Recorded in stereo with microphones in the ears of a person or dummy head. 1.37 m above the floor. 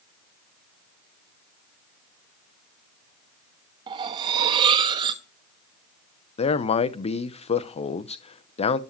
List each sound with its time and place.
3.9 s cutlery clinking: 25° right (ahead or behind), 1.0 m
6.4 s a man speaking: 25° left (ahead or behind), 0.7 m